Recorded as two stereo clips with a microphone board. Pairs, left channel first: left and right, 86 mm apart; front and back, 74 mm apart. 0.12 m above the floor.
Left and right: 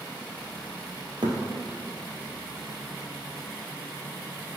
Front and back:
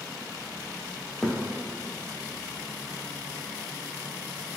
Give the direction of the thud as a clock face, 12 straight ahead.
3 o'clock.